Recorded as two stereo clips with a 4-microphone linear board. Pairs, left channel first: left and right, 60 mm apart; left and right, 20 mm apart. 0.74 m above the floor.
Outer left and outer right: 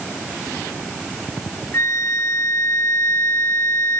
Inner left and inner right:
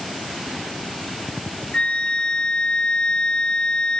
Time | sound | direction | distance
1.7 | a flute | 45° left (ahead or behind) | 0.8 m